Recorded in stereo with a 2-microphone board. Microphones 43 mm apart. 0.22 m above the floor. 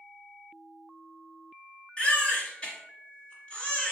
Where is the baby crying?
25° left (ahead or behind), 1.5 m.